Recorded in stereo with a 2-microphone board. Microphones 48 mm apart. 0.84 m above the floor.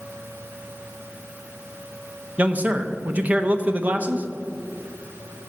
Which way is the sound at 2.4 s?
35° right (ahead or behind).